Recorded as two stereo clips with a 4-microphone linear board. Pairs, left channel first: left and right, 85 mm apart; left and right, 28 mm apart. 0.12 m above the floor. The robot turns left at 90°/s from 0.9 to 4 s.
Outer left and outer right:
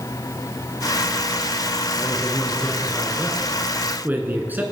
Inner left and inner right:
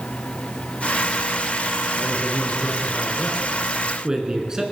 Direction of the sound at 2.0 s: 20° left (ahead or behind).